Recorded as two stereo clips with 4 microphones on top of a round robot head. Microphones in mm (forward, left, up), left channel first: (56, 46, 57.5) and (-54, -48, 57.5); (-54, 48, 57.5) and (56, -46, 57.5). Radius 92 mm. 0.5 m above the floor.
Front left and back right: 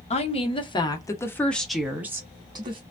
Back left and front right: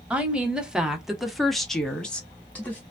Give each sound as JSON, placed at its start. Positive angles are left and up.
{"t": 0.1, "sound": "a woman speaking", "azimuth_deg": 40, "distance_m": 1.2}